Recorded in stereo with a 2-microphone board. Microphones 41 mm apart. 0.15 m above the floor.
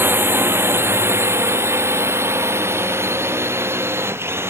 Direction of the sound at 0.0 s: 60° right (ahead or behind).